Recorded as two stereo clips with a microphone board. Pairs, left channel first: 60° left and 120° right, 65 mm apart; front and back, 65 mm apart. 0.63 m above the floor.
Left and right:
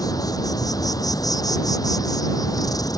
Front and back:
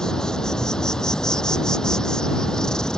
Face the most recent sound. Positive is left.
turn(degrees=80)